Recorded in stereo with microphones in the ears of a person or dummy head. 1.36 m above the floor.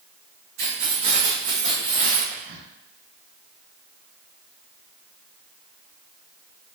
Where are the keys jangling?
65° right (ahead or behind), 1.3 m; by 2.2 s 35° right (ahead or behind), 1.6 m.